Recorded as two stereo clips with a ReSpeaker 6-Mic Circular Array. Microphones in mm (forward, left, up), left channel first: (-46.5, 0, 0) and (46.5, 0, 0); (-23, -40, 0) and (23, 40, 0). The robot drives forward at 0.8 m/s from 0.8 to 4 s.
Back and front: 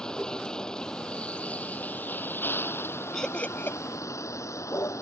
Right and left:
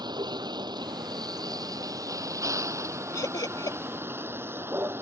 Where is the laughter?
95° right; by 3.8 s 125° right.